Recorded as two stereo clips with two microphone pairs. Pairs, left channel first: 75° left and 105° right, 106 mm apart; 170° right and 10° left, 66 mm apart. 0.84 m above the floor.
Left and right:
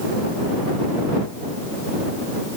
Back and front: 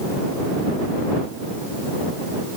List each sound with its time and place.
Only background noise.